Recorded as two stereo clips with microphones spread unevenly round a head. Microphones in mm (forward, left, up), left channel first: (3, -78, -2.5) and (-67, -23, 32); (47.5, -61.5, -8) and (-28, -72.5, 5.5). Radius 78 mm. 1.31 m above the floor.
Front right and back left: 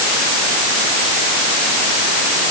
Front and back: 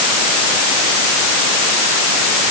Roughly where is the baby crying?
No baby crying in this recording.